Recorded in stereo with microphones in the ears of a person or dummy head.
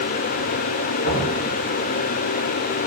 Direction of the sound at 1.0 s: 75° left (ahead or behind).